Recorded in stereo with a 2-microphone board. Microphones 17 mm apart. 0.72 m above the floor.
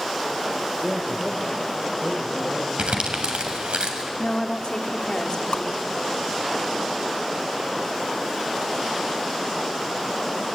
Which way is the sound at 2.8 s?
85° right.